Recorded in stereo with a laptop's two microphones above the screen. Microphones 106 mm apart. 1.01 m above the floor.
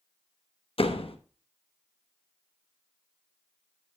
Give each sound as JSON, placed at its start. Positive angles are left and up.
{"t": 0.8, "sound": "a door slam", "side_deg": 60, "distance_m": 0.9}